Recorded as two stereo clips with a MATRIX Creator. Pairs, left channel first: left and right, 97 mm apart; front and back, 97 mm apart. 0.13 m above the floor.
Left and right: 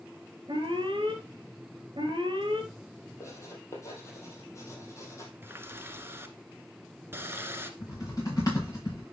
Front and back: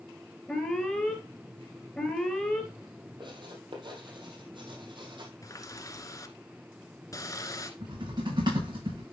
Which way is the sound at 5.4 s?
35° right.